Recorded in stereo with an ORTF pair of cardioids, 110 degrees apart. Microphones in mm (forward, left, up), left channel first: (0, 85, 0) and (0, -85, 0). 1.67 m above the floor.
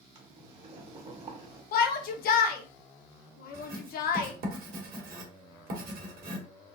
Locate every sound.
0.1 s boiling: 40° right, 1.6 m
1.7 s a shout: 65° left, 1.0 m
3.5 s writing: 60° right, 1.6 m